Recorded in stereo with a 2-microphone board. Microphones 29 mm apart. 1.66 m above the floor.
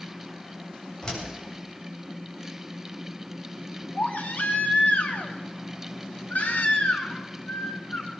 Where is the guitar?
No guitar in this recording.